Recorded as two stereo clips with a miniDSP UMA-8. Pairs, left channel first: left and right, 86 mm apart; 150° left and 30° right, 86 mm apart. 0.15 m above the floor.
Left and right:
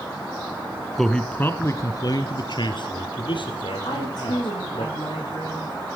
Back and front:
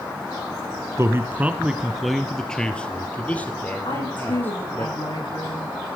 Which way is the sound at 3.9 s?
125° left.